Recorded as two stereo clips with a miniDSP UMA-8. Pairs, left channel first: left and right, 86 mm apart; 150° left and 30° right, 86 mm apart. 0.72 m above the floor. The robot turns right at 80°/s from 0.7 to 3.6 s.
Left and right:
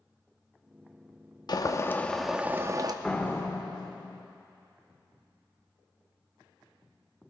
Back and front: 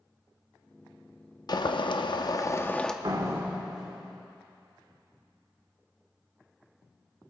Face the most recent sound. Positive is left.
turn(degrees=50)